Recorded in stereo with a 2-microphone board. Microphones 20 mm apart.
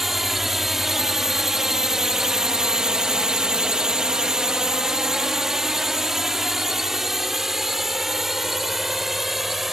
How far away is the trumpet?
I don't hear a trumpet.